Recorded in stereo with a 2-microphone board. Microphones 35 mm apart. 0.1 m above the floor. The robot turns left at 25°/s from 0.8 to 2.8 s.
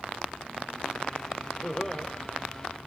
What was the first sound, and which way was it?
Laughter, 10° right (ahead or behind).